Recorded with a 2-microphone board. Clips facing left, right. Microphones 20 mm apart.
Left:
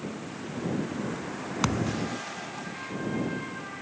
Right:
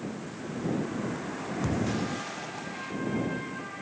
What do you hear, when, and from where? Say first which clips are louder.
1.6 s a thud: left 2 dB; 75° left (ahead or behind)